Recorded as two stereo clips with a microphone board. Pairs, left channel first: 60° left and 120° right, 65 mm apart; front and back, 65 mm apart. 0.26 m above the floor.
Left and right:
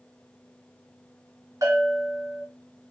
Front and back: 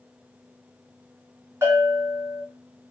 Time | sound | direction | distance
1.6 | a bell | 130° right | 2.5 m